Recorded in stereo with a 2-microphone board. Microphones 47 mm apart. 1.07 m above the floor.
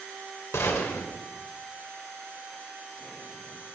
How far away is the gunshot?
About 2 m.